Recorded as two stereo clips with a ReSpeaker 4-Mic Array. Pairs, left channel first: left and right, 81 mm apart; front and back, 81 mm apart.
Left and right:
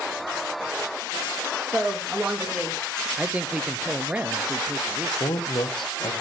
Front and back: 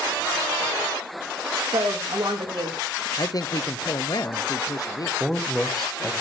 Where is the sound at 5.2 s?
90° left, 1.1 m.